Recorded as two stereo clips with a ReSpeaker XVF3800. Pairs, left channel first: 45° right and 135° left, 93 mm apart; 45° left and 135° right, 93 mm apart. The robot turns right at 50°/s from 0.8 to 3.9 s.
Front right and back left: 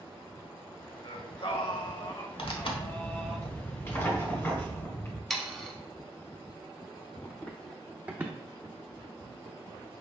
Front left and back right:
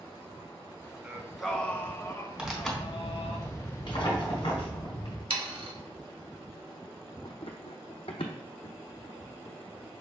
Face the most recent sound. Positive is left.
turn(degrees=95)